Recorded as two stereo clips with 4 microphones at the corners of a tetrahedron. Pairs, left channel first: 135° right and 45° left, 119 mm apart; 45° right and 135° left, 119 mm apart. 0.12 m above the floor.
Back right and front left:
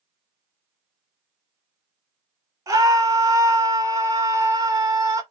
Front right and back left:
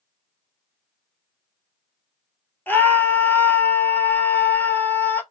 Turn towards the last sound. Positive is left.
turn(degrees=15)